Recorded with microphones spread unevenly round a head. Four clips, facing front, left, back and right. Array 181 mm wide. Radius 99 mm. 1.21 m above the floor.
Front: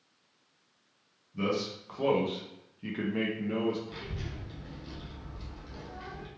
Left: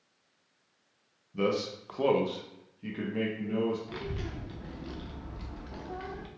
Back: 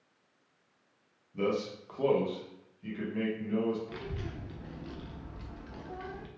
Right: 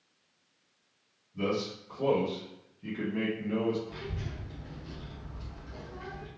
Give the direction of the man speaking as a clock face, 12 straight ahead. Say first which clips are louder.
Left 2 dB, even; 9 o'clock.